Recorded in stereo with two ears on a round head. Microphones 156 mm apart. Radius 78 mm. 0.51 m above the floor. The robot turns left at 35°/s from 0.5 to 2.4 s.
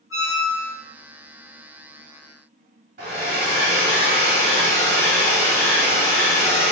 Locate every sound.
0.1 s a squeak: 20° right (ahead or behind), 1.3 m; by 0.8 s 10° right (ahead or behind), 1.3 m
3.0 s a hair dryer: 60° right (ahead or behind), 1.5 m